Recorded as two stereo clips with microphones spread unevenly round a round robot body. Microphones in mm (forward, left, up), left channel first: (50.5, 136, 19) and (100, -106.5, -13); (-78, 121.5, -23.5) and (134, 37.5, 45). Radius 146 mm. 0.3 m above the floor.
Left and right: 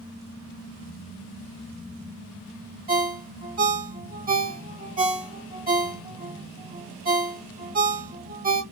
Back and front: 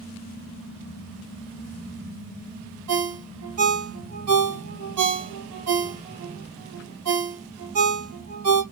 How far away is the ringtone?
About 1.3 m.